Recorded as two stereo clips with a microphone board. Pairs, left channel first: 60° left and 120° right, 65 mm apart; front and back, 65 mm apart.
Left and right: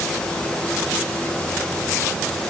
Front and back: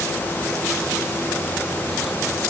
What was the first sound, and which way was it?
Only background noise.